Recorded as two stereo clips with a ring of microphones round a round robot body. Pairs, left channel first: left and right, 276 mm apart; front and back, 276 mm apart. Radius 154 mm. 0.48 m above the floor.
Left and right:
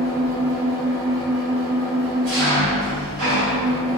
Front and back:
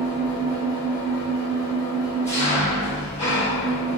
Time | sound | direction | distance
0.0 | an engine running | 75° right | 1.6 m